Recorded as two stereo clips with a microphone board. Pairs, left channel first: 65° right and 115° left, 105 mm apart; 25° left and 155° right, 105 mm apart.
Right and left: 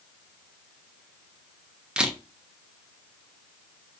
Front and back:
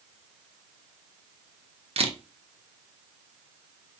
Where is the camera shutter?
165° right, 0.6 m.